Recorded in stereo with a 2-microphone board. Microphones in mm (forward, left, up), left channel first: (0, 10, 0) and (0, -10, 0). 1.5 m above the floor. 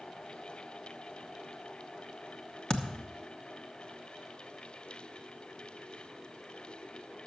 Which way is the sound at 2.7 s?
40° left (ahead or behind).